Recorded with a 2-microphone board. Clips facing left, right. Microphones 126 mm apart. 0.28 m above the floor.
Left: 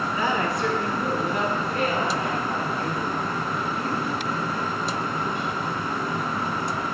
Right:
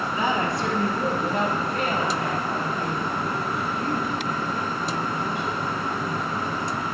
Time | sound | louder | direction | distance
0.1 | a woman speaking | right 1 dB | 25° right (ahead or behind) | 1.8 m